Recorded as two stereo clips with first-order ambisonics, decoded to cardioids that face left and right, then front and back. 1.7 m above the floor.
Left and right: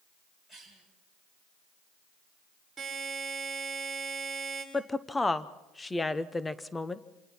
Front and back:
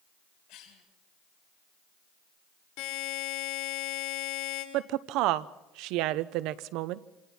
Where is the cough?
15° left, 7.5 m.